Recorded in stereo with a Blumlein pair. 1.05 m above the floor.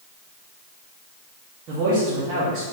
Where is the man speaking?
35° right, 1.5 m.